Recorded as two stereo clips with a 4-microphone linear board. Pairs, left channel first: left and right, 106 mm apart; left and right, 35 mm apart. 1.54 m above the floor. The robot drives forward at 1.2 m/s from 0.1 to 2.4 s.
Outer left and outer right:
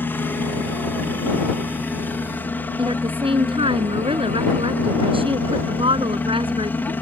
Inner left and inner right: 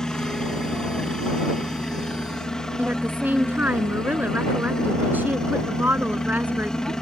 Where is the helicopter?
20° left (ahead or behind); by 7.0 s 15° left (ahead or behind).